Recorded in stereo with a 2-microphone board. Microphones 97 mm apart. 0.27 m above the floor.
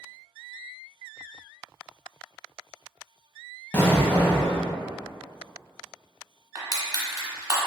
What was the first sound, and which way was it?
An explosion, 20° left (ahead or behind).